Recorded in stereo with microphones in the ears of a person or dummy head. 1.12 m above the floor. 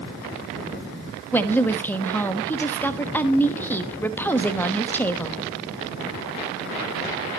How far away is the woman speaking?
About 1.3 m.